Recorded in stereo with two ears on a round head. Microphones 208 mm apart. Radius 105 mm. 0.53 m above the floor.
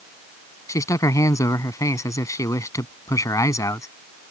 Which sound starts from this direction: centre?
A man speaking, at 0.7 s.